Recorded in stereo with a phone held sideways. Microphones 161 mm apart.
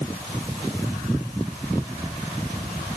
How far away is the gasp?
No gasp in this recording.